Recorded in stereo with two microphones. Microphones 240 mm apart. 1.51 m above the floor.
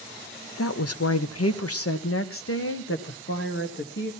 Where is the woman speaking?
75° left (ahead or behind), 1.0 m; by 4.1 s 50° left (ahead or behind), 2 m.